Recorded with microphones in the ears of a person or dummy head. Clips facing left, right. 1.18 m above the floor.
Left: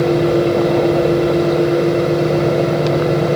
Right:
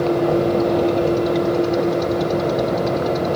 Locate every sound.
0.0 s a fan: 35° left (ahead or behind), 7.5 m